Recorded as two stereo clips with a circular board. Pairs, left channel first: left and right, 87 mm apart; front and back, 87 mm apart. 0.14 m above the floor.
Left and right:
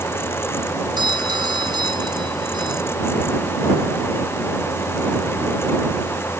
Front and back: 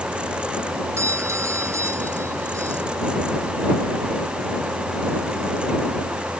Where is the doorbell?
120° right.